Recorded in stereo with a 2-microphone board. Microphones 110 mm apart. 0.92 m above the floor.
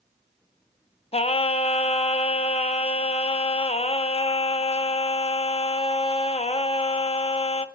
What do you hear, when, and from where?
1.1 s singing: 65° left (ahead or behind), 0.5 m